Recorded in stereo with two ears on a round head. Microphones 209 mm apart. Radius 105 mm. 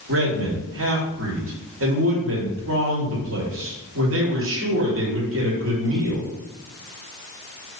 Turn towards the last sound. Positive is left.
turn(degrees=-60)  # may be behind; listen again after turning